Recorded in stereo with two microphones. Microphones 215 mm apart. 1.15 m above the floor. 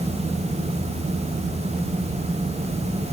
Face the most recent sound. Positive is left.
No sound to turn to.